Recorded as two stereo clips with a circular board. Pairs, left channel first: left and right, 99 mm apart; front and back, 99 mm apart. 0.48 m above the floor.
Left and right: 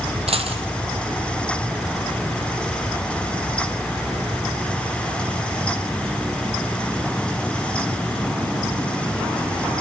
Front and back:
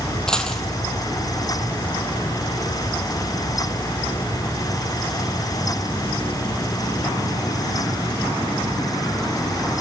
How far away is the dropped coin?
About 2.5 m.